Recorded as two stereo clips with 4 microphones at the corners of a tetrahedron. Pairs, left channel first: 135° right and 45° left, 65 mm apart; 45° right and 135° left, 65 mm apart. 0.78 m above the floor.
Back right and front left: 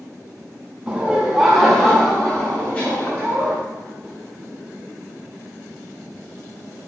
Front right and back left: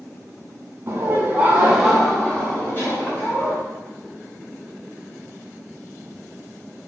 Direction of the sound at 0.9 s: 115° left.